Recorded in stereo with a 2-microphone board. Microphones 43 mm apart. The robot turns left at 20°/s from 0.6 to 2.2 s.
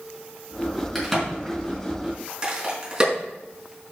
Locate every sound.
0.9 s a crack: 5° left (ahead or behind), 5 m; by 3.1 s 20° right (ahead or behind), 5 m